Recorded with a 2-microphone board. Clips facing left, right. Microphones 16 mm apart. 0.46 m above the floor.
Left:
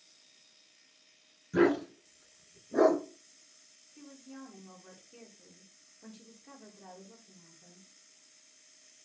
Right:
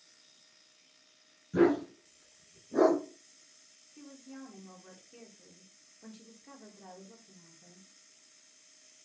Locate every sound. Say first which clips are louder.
1.5 s a dog barking: even; 50° left (ahead or behind), 1.1 m; by 3.0 s 55° left (ahead or behind), 1.4 m
4.0 s a woman speaking: right 1 dB; 15° right (ahead or behind), 0.8 m